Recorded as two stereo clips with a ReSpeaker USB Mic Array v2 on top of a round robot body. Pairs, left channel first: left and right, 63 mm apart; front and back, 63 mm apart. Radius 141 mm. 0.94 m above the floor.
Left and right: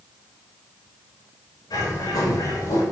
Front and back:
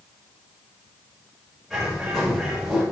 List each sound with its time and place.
1.7 s a bird: 90° left, 5 m